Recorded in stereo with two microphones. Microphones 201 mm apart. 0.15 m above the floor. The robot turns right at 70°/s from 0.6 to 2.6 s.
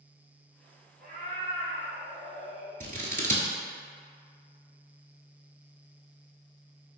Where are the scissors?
45° right (ahead or behind), 0.6 m.